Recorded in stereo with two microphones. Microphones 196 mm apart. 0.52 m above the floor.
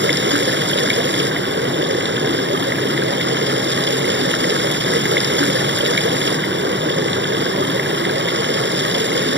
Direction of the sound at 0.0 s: 65° right (ahead or behind).